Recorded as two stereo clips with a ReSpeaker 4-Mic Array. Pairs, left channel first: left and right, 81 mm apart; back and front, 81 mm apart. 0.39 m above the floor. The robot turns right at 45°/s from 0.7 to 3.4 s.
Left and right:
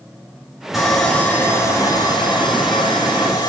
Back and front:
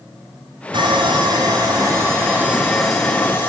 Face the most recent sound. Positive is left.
turn(degrees=115)